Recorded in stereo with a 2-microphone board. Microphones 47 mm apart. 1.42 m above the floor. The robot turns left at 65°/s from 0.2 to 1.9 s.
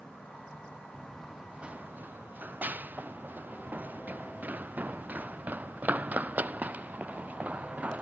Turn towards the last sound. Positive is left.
turn(degrees=-30)  # may be behind; listen again after turning